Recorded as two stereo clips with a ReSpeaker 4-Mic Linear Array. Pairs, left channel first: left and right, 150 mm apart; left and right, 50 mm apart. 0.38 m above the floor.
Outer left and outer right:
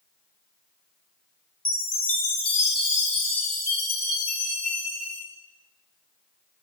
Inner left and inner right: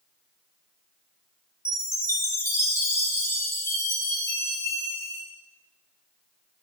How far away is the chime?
About 1.1 m.